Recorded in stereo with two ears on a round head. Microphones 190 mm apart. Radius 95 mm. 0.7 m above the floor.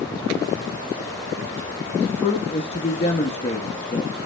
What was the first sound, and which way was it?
A man speaking, 30° left (ahead or behind).